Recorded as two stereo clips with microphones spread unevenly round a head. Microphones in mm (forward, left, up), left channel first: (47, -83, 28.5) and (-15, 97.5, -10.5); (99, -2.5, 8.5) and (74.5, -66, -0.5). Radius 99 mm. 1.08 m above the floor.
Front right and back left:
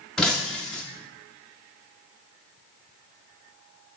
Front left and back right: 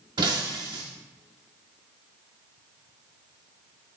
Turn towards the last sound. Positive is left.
turn(degrees=-155)